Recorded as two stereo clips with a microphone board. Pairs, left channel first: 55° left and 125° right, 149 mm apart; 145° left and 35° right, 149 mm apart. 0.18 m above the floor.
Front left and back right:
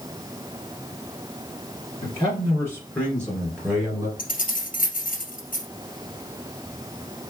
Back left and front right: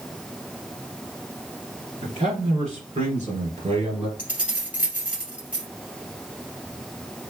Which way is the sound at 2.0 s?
5° left.